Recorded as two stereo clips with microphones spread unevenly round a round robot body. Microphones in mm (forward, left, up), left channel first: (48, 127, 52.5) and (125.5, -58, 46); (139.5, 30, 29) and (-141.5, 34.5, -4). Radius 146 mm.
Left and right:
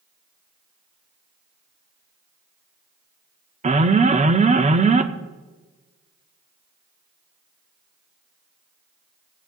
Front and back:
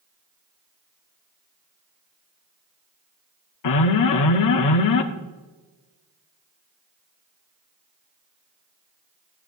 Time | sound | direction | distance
3.6 | an alarm | 15° right | 0.9 m